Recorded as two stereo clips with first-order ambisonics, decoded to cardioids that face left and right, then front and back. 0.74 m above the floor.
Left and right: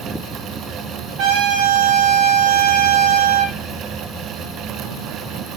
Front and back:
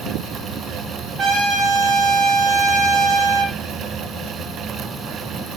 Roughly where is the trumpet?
Behind right.